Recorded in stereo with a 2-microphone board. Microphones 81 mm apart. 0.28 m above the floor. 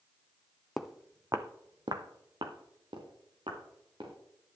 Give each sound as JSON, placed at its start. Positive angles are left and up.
{"t": 0.8, "sound": "footsteps", "side_deg": 0, "distance_m": 0.8}